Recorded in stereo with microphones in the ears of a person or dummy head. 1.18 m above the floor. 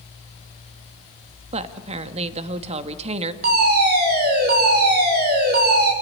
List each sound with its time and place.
1.5 s a woman speaking: 35° right (ahead or behind), 1.5 m
3.4 s a fire alarm: 55° right (ahead or behind), 6 m